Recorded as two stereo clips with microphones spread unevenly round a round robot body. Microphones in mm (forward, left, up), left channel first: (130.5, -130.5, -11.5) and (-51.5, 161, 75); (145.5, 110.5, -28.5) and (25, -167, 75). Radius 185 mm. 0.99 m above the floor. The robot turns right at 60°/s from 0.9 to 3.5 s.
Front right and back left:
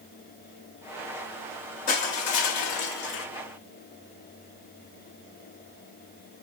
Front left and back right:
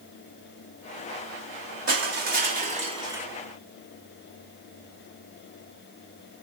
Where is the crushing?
135° right, 0.6 m; by 3.3 s 50° right, 0.6 m.